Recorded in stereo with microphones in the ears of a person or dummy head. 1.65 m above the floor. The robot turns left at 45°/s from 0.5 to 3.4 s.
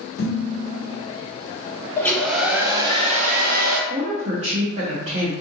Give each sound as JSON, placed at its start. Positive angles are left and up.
{"t": 0.2, "sound": "dishes clattering", "side_deg": 60, "distance_m": 1.8}
{"t": 2.0, "sound": "a hair dryer", "azimuth_deg": 15, "distance_m": 0.6}
{"t": 3.9, "sound": "a woman speaking", "side_deg": -35, "distance_m": 0.6}